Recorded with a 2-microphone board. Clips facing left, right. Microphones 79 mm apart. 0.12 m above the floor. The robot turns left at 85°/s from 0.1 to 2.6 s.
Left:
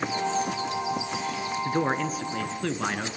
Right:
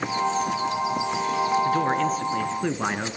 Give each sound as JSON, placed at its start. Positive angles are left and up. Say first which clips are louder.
{"t": 1.6, "sound": "a man speaking", "louder": "right 4 dB", "side_deg": 15, "distance_m": 1.8}